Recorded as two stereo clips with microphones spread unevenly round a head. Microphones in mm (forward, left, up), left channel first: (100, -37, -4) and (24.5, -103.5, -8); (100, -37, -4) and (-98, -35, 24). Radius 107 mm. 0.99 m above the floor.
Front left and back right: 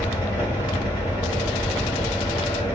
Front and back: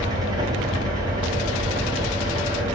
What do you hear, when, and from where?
0.0 s a fan: 110° left, 0.7 m